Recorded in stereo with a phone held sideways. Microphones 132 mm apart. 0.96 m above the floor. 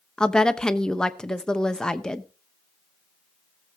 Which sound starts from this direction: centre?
A woman speaking, at 0.2 s.